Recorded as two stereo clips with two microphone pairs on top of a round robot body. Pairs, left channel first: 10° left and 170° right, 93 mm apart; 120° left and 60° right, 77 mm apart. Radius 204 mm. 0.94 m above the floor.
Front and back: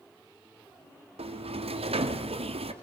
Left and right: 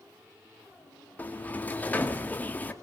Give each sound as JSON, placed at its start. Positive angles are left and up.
{"t": 1.2, "sound": "a sliding door", "azimuth_deg": -170, "distance_m": 1.8}